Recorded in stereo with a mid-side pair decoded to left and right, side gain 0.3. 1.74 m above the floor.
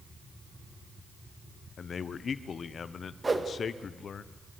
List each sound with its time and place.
1.8 s a man speaking: 65° left, 0.9 m
3.2 s a whoosh: 30° right, 2 m